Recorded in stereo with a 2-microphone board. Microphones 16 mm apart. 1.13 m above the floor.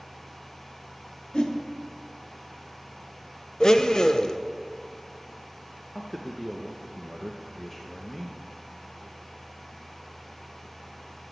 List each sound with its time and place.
1.3 s a whoosh: 70° left (ahead or behind), 1.1 m
3.6 s a blender: 50° left (ahead or behind), 0.6 m
6.0 s a man speaking: 20° left (ahead or behind), 0.9 m